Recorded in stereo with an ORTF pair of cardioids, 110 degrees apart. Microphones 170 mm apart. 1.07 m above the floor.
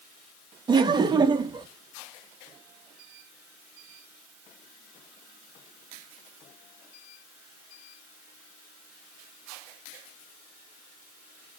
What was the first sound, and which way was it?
Laughter, 25° right.